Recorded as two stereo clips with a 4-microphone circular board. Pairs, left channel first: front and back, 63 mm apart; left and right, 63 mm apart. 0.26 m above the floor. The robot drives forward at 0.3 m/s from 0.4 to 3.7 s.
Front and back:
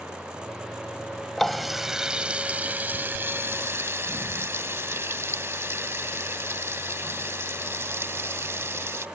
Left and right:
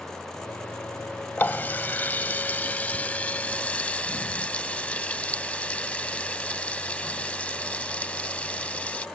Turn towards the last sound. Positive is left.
turn(degrees=150)